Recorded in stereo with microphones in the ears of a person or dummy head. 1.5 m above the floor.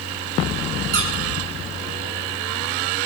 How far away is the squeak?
About 3 m.